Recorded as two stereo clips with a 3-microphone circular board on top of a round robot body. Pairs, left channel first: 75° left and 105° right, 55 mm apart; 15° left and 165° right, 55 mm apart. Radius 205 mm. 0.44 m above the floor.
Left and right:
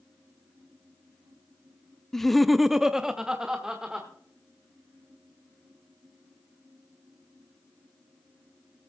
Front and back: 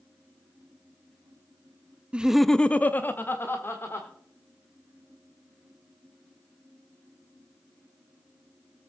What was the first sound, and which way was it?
Laughter, 150° left.